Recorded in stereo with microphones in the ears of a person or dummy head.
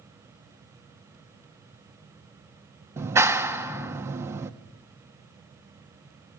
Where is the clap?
15° right (ahead or behind), 1.1 m.